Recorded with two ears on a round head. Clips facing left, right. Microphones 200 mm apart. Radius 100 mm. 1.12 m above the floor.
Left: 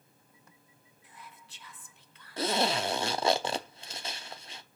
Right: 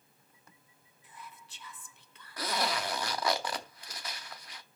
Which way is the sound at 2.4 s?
25° left (ahead or behind).